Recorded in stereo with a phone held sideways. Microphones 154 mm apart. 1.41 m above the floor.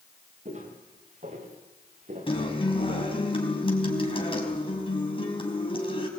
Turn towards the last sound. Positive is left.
turn(degrees=35)  # may be behind; listen again after turning